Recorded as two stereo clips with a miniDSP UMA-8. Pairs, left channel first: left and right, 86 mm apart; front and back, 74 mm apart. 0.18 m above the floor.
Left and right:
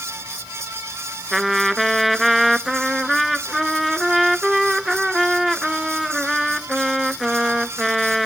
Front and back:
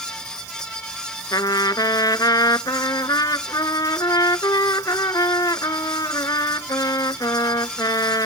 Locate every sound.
1.3 s a trumpet: straight ahead